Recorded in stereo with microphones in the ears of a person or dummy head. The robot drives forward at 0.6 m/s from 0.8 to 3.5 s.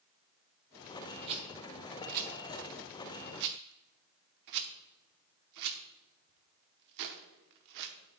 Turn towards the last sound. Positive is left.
turn(degrees=-60)  # may be behind; listen again after turning